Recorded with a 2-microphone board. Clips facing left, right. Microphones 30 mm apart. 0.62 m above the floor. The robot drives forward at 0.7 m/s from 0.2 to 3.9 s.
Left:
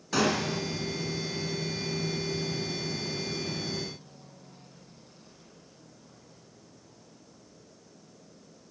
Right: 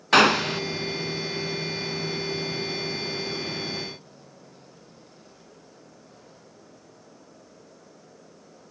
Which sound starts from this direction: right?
A gunshot, at 0.1 s.